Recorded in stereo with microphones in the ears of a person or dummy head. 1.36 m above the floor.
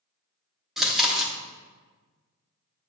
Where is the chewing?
Centre (ahead or behind), 0.8 m.